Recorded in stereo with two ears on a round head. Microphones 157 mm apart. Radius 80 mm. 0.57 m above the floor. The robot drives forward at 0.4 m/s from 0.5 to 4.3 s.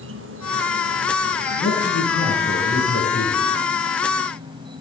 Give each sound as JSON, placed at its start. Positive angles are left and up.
{"t": 0.0, "sound": "an insect", "side_deg": -80, "distance_m": 0.8}
{"t": 1.6, "sound": "a man speaking", "side_deg": 40, "distance_m": 6.5}